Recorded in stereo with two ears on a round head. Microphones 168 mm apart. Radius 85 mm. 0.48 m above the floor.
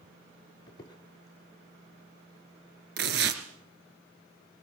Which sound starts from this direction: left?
A squeak, at 0.7 s.